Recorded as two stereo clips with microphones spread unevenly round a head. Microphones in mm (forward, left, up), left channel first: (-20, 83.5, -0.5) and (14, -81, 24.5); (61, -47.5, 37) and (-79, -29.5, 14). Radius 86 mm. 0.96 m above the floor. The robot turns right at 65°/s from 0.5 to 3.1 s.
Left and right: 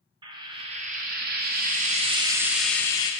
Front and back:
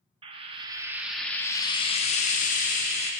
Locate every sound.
0.2 s frying: 135° right, 0.5 m; by 3.1 s 35° left, 0.5 m